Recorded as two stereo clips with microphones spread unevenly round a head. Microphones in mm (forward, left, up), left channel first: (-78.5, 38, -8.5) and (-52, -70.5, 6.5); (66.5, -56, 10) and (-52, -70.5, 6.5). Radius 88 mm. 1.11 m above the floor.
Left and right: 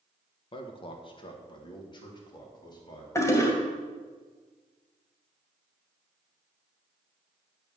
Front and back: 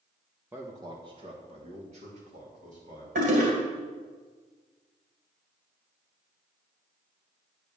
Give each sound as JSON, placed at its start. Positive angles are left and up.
{"t": 0.5, "sound": "a man speaking", "azimuth_deg": 115, "distance_m": 1.1}
{"t": 3.1, "sound": "a toilet flushing", "azimuth_deg": 170, "distance_m": 2.0}